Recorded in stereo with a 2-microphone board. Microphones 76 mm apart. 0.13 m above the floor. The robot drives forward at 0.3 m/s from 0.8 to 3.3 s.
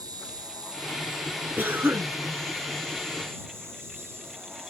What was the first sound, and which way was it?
An insect, 70° right (ahead or behind).